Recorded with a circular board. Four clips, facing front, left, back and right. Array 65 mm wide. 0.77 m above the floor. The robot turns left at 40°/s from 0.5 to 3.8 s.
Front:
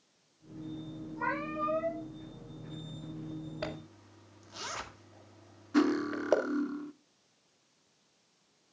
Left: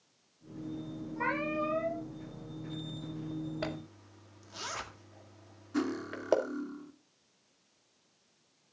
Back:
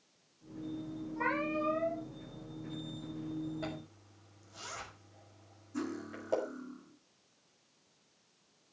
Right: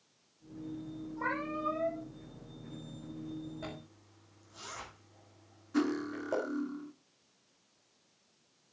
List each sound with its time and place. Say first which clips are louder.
1.2 s a cat meowing: left 3 dB, even; 125° left, 5.5 m; by 2.0 s 90° left, 5.5 m
3.6 s a zipper: left 6 dB, front 2 dB; 55° left, 1.9 m; by 6.4 s 45° left, 1.9 m
5.7 s cutlery clinking: right 2 dB, front 12 dB; 5° right, 0.8 m